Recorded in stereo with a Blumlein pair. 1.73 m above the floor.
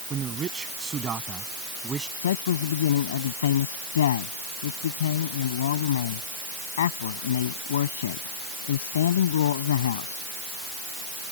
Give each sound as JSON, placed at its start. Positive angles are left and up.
{"t": 0.1, "sound": "a man speaking", "azimuth_deg": -25}
{"t": 2.2, "sound": "a man speaking", "azimuth_deg": 60}